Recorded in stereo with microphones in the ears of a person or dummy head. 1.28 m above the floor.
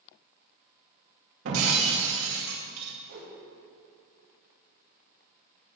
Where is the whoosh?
65° right (ahead or behind), 2.5 m.